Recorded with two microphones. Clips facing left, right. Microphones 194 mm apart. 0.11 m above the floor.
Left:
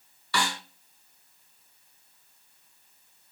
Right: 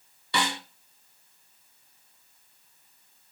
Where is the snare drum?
25° right (ahead or behind), 0.8 m.